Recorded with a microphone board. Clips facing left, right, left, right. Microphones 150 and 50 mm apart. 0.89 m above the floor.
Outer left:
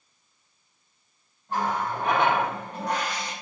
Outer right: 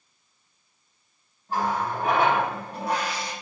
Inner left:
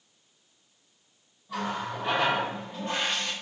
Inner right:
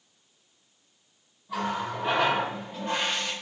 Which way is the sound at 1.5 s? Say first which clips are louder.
Outer right 1 dB, inner right 2 dB; 10° right (ahead or behind).